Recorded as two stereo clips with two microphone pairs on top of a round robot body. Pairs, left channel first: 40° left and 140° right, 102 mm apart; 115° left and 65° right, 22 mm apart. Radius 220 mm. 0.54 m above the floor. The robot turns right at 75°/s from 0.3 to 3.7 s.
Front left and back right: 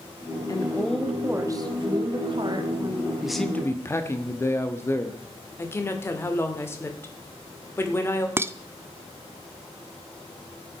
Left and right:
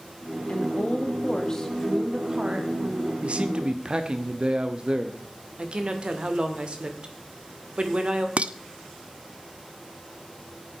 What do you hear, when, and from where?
0.5 s a woman speaking: 100° left, 1.8 m; by 3.1 s 65° right, 1.8 m
3.2 s a man speaking: 65° right, 1.2 m; by 5.2 s 25° right, 1.2 m
5.6 s a woman speaking: 25° right, 2.0 m
8.4 s dishes clattering: 80° right, 0.6 m